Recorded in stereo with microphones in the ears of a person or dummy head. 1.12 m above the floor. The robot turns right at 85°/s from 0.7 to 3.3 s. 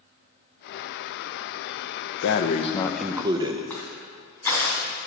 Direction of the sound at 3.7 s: 10° left (ahead or behind).